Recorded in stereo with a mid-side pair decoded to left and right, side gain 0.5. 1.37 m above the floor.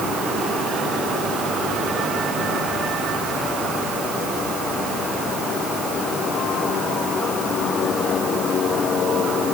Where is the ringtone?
No ringtone in this recording.